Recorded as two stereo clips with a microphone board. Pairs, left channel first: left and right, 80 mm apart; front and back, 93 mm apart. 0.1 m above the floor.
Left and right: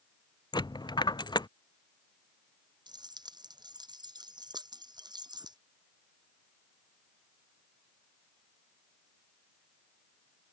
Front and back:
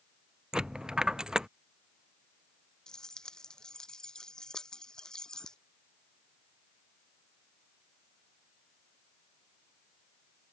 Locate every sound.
0.5 s a dropped coin: 100° left
2.9 s keys jangling: 80° right